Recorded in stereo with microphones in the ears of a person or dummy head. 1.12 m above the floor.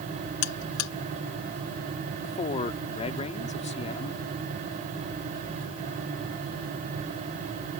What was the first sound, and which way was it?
A buzzer, 90° left.